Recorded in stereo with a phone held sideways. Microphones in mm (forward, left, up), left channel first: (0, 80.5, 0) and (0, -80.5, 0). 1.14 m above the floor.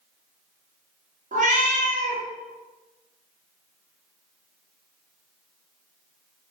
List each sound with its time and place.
1.3 s a cat meowing: 50° right (ahead or behind), 0.8 m